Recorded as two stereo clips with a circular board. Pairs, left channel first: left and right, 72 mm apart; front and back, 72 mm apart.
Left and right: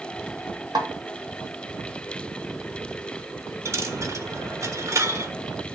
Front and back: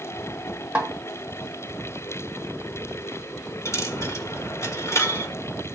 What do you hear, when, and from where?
0.8 s a snare drum: 110° right, 1.9 m
3.6 s a dropped coin: 50° right, 1.7 m